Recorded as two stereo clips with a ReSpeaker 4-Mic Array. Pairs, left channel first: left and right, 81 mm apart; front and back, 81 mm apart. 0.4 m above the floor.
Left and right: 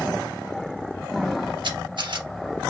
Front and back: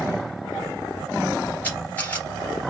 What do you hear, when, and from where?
1.6 s a camera shutter: 70° right, 2 m